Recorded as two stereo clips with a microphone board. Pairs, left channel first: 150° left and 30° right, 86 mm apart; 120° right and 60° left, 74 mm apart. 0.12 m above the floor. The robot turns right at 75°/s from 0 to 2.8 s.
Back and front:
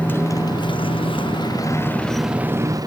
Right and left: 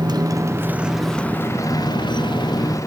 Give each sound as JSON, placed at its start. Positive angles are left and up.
{"t": 0.0, "sound": "a motorcycle", "azimuth_deg": 75}